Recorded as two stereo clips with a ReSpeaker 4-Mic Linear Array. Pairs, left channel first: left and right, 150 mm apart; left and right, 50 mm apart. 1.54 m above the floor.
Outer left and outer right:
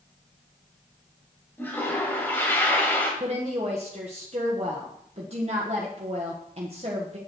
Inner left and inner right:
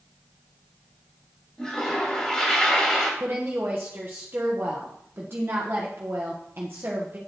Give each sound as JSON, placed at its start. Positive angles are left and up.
{"t": 1.6, "sound": "a toilet flushing", "side_deg": 15, "distance_m": 2.5}
{"t": 3.2, "sound": "a woman speaking", "side_deg": -45, "distance_m": 1.4}